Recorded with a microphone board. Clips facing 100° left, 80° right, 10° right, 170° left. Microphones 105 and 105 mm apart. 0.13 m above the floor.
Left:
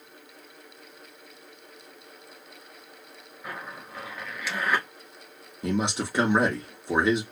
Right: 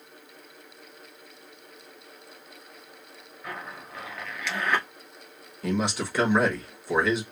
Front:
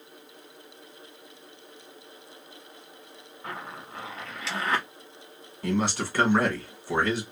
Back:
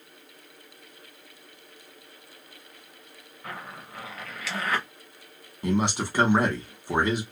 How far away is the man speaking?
About 1.1 m.